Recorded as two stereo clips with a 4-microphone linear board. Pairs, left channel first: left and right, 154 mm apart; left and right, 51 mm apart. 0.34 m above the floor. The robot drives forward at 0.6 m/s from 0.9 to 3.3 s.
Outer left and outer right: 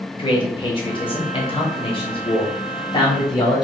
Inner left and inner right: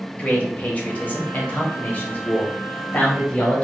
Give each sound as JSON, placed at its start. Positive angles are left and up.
{"t": 0.2, "sound": "a man speaking", "side_deg": 35, "distance_m": 1.3}